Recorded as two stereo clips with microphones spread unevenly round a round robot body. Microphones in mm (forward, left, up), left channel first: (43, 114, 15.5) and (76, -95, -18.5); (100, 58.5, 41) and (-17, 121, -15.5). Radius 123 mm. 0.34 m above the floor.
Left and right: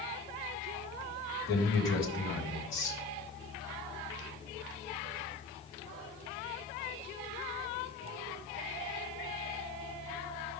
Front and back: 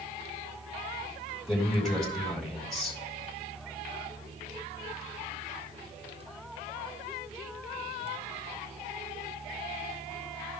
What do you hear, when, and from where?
1.5 s a man speaking: 70° left, 3.5 m